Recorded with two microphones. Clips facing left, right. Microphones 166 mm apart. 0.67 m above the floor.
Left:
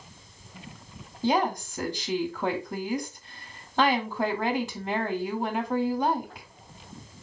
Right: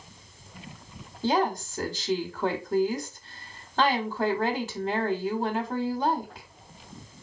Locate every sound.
1.2 s a woman speaking: 5° left (ahead or behind), 0.7 m